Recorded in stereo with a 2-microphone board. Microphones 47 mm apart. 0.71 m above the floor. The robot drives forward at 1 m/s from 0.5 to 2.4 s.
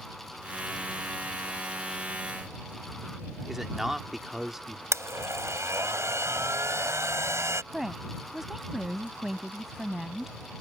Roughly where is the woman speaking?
Centre.